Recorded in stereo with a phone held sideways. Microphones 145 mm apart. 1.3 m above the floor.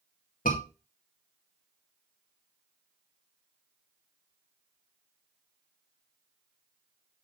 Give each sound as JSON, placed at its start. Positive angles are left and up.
{"t": 0.5, "sound": "a scream", "side_deg": 75, "distance_m": 2.0}